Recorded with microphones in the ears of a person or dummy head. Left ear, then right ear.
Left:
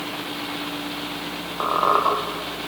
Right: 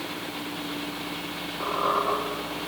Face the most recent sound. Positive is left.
turn(degrees=60)  # may be behind; listen again after turning